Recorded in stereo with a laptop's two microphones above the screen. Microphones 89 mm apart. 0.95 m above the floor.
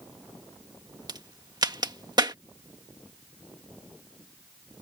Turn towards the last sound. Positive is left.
turn(degrees=-50)  # may be behind; listen again after turning